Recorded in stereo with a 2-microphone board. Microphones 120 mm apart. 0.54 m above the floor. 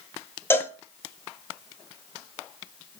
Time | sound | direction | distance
0.5 | a cowbell | 20° left (ahead or behind) | 0.8 m